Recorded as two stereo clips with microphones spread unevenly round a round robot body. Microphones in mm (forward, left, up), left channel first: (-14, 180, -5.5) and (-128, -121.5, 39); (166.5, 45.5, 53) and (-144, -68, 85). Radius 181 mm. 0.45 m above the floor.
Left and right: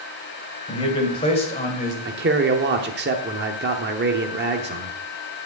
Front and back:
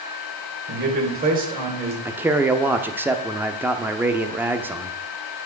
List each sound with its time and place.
0.7 s a man speaking: 140° left, 3 m; by 1.9 s 125° left, 2.5 m
2.0 s a man speaking: 70° right, 0.9 m